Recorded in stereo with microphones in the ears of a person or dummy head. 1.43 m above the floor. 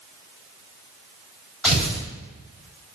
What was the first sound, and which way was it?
Tearing paper, 5° right (ahead or behind).